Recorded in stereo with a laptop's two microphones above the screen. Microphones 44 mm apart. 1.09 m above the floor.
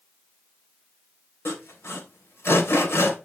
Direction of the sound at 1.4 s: 70° left (ahead or behind).